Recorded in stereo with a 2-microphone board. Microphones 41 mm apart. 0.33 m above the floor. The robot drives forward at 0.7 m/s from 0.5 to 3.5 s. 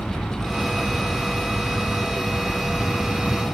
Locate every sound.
0.0 s an aircraft: 20° left (ahead or behind); by 3.5 s 30° left (ahead or behind)